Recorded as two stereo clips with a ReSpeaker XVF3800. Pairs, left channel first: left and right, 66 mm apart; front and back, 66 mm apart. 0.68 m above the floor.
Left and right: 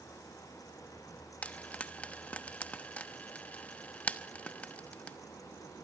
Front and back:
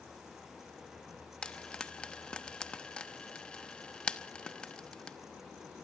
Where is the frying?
55° left, 1.0 m.